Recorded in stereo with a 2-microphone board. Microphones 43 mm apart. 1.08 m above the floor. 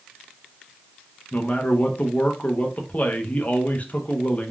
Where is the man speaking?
35° left (ahead or behind), 0.6 m.